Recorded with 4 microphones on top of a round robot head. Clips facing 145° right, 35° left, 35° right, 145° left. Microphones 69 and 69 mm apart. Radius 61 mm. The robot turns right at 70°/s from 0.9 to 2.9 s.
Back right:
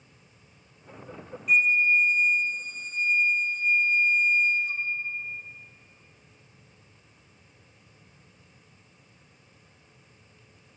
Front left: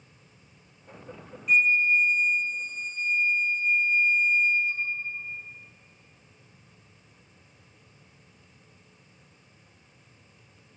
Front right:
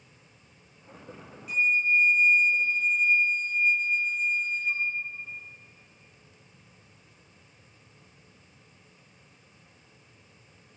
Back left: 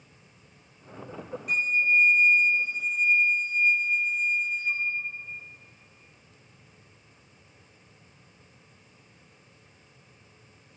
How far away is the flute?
About 0.8 m.